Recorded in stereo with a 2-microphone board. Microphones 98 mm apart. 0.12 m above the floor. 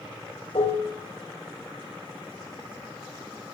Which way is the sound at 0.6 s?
75° left (ahead or behind).